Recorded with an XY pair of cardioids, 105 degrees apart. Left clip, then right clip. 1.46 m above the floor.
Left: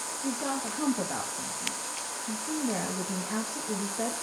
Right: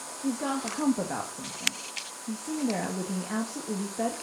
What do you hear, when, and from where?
0.2 s a woman speaking: 20° right, 2.0 m